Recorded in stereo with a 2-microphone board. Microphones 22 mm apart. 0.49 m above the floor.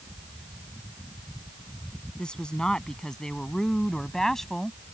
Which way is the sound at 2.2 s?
40° left (ahead or behind).